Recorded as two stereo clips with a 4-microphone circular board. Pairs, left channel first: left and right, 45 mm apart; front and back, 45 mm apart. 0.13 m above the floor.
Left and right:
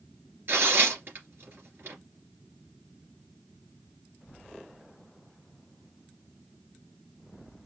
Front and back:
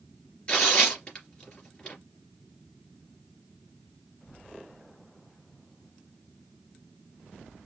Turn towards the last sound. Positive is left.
turn(degrees=-60)